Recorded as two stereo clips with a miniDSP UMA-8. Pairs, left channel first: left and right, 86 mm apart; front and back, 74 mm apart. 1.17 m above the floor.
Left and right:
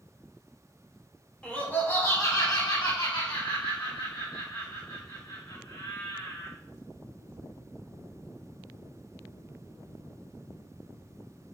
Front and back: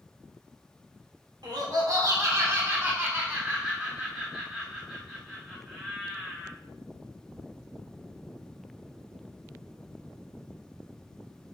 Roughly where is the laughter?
Behind.